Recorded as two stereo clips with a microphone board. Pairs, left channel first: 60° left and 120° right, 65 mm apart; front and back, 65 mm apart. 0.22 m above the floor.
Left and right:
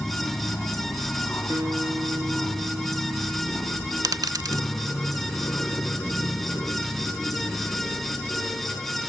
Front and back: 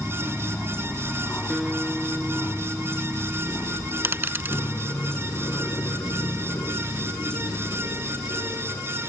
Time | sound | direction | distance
0.0 | an aircraft | 55° left | ?
1.5 | a guitar | 105° right | ?
4.0 | a dropped coin | 125° right | ?